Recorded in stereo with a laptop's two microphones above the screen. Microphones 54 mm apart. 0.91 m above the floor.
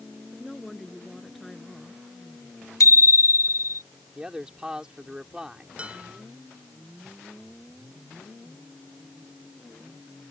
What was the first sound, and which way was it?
A woman speaking, 5° left (ahead or behind).